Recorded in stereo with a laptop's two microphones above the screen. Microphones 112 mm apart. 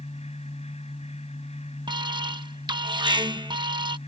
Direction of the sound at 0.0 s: 75° left (ahead or behind).